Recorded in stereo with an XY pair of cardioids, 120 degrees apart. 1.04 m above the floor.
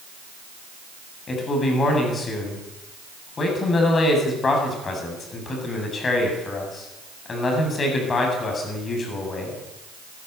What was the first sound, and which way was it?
A man speaking, 35° left.